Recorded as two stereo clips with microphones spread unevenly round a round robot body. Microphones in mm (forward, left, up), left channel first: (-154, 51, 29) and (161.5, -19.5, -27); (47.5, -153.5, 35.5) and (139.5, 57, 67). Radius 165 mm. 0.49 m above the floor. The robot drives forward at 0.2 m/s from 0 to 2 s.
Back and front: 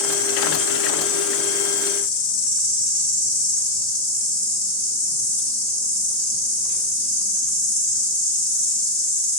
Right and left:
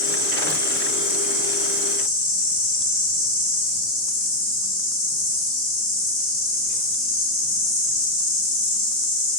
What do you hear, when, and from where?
0.0 s an insect: 160° left, 2 m; by 9.4 s 165° left, 2.5 m